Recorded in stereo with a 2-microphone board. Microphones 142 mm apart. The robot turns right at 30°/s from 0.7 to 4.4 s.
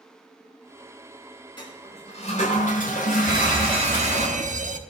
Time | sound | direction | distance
1.6 | a toilet flushing | 35° left | 6.5 m
3.3 | an alarm | 150° right | 1.0 m